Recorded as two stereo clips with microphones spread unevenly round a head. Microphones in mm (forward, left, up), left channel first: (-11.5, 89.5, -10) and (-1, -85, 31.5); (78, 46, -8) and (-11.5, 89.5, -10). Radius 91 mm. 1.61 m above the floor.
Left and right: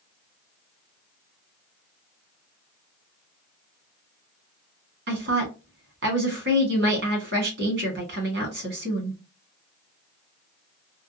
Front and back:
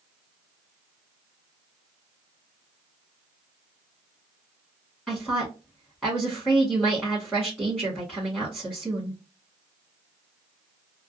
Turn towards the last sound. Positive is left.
turn(degrees=-115)